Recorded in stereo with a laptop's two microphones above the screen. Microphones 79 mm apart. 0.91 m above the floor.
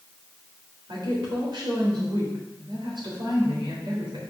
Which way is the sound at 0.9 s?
75° right (ahead or behind).